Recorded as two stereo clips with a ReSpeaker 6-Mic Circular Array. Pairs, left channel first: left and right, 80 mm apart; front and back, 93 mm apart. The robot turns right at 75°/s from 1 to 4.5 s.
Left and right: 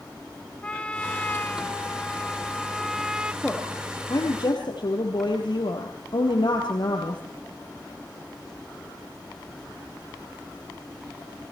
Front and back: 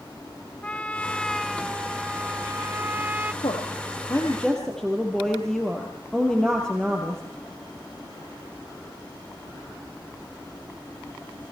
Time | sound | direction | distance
0.6 | a trumpet | 45° left | 0.6 m
3.4 | a woman speaking | 5° left | 3.5 m